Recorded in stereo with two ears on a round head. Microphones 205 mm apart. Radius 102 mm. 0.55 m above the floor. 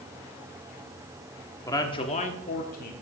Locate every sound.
1.6 s a man speaking: 15° left (ahead or behind), 1.1 m; by 2.9 s 40° left (ahead or behind), 1.3 m